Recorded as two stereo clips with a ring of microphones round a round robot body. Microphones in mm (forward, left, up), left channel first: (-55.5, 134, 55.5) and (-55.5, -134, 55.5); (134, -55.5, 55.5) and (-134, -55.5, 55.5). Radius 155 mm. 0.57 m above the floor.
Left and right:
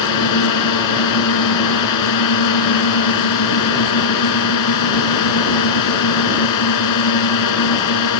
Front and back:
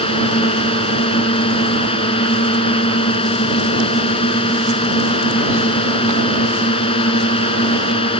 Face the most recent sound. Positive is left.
turn(degrees=75)